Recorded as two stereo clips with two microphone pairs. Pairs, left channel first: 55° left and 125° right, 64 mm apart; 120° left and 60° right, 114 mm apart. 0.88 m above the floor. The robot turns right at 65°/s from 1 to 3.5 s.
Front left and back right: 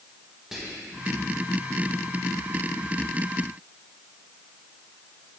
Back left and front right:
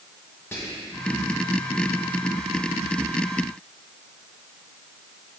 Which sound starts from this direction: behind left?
Whispering, at 0.5 s.